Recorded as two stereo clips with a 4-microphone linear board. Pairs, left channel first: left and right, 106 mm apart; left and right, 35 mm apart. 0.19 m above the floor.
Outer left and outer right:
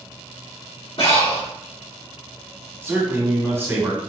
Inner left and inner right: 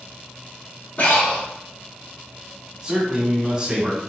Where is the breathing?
55° left (ahead or behind), 1.1 m.